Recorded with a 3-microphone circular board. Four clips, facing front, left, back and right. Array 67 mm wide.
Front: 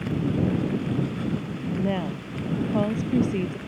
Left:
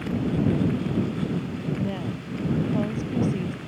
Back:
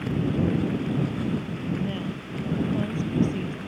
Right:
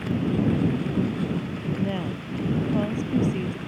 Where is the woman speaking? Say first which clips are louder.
Right 1 dB, front 3 dB; 10° right.